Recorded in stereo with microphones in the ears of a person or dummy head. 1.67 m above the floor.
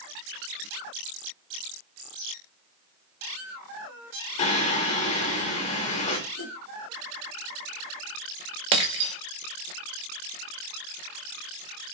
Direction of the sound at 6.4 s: 75° left (ahead or behind).